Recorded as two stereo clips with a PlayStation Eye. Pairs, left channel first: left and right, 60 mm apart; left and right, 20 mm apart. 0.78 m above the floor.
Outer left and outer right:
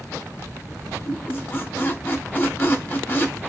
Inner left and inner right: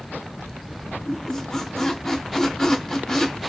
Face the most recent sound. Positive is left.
turn(degrees=35)  # may be behind; listen again after turning